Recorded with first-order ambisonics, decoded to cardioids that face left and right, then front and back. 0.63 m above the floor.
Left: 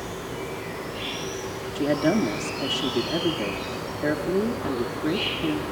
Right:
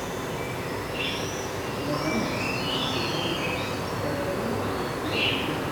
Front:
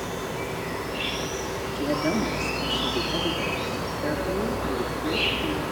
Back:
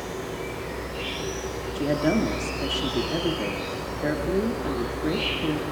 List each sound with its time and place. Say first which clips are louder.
0.0 s an insect: right 2 dB, front 2 dB; 55° right, 6.5 m
1.8 s a woman speaking: left 6 dB, back 2 dB; 115° left, 0.7 m